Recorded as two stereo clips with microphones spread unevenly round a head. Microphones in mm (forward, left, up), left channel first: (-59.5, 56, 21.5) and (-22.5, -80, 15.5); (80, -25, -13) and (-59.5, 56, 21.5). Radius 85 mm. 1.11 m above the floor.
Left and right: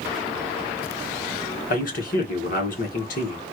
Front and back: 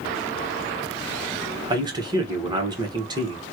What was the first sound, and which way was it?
A man speaking, 80° left.